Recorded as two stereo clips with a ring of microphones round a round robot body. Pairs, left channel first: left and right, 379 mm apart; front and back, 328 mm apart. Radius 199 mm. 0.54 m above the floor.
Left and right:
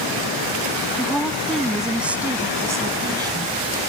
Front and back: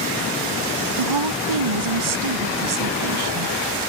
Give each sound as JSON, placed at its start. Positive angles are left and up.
{"t": 1.0, "sound": "a woman speaking", "azimuth_deg": 175}